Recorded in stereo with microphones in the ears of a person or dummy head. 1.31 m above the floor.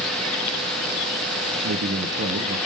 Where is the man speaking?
60° right (ahead or behind), 0.6 m.